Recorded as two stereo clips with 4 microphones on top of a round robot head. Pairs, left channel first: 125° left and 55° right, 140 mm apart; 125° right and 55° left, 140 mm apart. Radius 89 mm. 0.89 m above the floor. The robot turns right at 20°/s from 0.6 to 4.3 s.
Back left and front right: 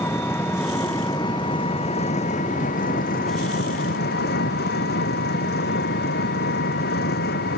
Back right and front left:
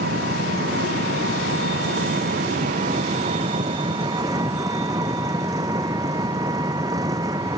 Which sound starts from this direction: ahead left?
An engine running, at 0.0 s.